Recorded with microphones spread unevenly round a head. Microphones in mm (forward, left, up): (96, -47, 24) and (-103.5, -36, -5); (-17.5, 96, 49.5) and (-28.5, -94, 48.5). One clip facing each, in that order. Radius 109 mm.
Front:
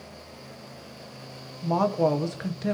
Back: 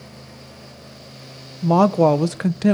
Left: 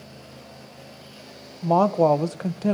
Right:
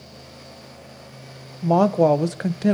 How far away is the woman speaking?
About 0.5 m.